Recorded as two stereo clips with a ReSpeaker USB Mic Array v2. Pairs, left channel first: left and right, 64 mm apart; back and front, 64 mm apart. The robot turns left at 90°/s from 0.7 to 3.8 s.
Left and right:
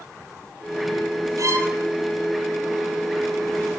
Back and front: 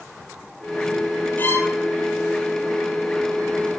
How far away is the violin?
About 2 m.